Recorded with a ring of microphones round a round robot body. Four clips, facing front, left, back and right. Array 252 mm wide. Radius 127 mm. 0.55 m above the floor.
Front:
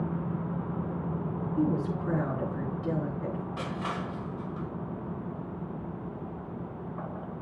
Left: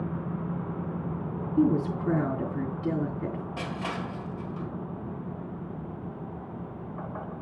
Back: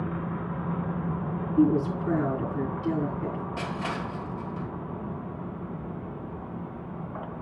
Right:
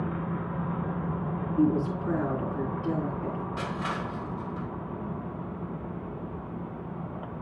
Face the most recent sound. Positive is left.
turn(degrees=135)